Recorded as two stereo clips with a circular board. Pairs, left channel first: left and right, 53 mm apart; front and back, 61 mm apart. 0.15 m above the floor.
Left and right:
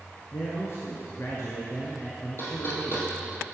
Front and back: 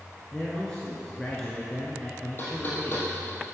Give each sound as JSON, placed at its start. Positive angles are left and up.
{"t": 0.3, "sound": "a man speaking", "azimuth_deg": 75, "distance_m": 1.7}
{"t": 2.4, "sound": "knocking", "azimuth_deg": 50, "distance_m": 3.5}